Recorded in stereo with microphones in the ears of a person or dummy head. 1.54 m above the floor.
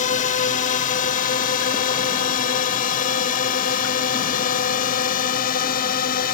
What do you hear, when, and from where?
0.0 s a drone: 45° left (ahead or behind); by 6.3 s 50° left (ahead or behind)